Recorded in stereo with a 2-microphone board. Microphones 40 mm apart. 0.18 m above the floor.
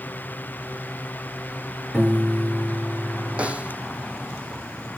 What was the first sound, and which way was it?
A piano, 10° right (ahead or behind).